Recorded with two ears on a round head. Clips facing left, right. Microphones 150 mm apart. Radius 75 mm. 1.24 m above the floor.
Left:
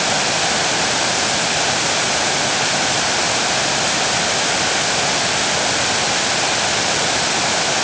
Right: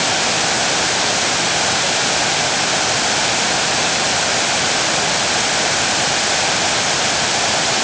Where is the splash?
No splash in this recording.